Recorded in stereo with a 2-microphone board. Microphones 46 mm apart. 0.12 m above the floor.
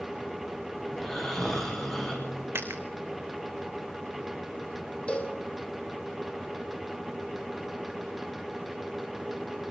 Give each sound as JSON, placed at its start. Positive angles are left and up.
{"t": 0.9, "sound": "snoring", "side_deg": 10, "distance_m": 7.0}
{"t": 2.5, "sound": "a dropped coin", "side_deg": -60, "distance_m": 2.5}
{"t": 5.1, "sound": "a cowbell", "side_deg": 25, "distance_m": 2.5}